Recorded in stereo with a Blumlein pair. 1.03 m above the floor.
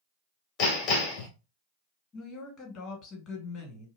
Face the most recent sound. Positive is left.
turn(degrees=30)